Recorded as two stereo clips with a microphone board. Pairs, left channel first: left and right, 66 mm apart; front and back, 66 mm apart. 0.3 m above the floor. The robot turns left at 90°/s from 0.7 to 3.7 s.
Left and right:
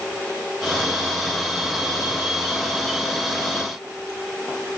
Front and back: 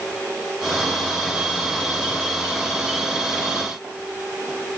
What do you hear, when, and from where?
Only background noise.